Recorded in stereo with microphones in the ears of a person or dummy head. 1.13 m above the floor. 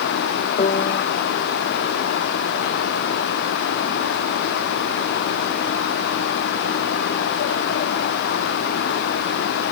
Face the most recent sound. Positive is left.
turn(degrees=35)  # may be behind; listen again after turning